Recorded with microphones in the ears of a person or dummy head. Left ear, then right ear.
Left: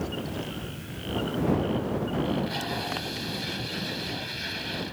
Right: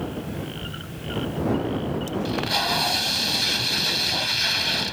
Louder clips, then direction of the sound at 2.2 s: Right 7 dB; 40° right (ahead or behind).